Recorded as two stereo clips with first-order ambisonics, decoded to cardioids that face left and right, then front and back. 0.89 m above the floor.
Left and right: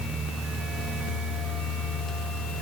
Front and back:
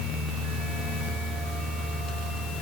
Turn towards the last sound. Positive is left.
No sound to turn to.